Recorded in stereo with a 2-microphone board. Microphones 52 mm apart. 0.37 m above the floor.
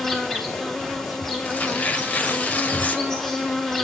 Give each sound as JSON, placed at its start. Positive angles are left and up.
{"t": 0.0, "sound": "an insect", "side_deg": 10, "distance_m": 2.5}
{"t": 1.4, "sound": "tearing paper", "side_deg": 30, "distance_m": 1.3}